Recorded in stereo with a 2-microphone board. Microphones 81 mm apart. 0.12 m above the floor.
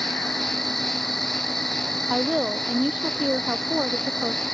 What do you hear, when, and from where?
0.0 s an insect: centre (ahead or behind)
2.1 s a woman speaking: 10° right (ahead or behind)